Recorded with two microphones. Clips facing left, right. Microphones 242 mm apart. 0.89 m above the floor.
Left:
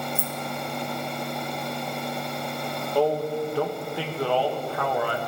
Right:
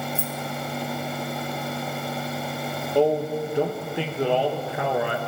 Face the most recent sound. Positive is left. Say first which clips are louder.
# right 2 dB
turn(degrees=-20)  # may be behind; listen again after turning